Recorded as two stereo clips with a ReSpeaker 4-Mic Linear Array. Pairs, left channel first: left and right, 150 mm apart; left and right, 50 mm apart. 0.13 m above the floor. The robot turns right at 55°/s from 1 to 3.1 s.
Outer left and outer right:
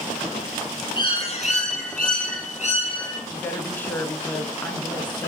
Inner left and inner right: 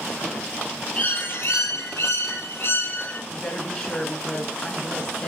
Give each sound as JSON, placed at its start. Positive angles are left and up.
{"t": 1.0, "sound": "a bird", "azimuth_deg": 35, "distance_m": 1.6}
{"t": 3.3, "sound": "a woman speaking", "side_deg": 15, "distance_m": 1.3}